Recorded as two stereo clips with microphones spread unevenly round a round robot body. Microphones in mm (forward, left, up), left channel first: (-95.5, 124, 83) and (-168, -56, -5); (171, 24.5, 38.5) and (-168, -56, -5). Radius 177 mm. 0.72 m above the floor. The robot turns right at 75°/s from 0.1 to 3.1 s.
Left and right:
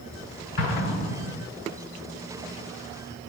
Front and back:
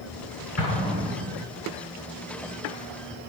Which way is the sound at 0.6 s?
70° left.